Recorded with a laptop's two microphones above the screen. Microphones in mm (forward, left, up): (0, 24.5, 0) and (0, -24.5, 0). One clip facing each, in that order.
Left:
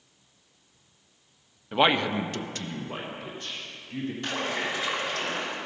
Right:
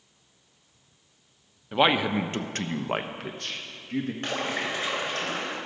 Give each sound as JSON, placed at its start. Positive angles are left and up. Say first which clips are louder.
{"t": 1.7, "sound": "a man speaking", "louder": "even", "side_deg": 5, "distance_m": 0.6}
{"t": 4.2, "sound": "a splash", "louder": "even", "side_deg": -40, "distance_m": 2.0}